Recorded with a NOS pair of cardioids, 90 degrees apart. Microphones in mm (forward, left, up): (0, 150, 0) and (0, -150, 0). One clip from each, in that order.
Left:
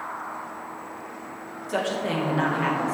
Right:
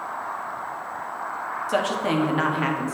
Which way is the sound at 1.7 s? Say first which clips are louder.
Right 2 dB; 35° right.